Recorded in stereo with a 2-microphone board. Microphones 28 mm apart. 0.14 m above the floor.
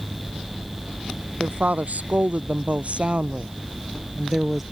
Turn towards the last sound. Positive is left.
turn(degrees=-10)  # may be behind; listen again after turning